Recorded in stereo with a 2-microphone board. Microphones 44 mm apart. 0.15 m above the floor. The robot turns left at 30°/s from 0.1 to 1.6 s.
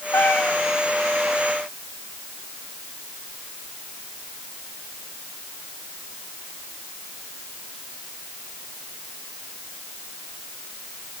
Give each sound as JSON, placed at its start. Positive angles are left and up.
{"t": 0.1, "sound": "a cat meowing", "side_deg": 70, "distance_m": 4.0}